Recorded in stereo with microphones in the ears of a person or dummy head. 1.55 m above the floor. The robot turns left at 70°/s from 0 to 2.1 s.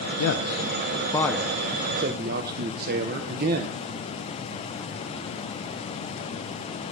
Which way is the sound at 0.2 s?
75° left (ahead or behind).